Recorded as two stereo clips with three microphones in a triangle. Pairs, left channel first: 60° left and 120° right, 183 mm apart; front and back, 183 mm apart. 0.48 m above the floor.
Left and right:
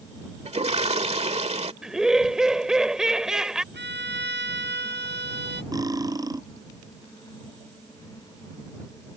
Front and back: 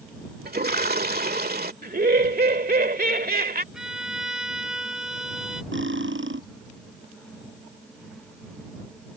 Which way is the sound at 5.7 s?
170° left.